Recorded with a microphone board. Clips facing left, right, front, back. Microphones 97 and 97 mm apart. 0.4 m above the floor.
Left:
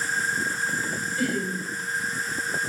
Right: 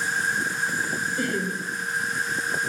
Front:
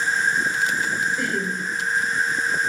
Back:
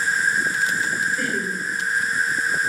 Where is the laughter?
85° right, 1.5 m.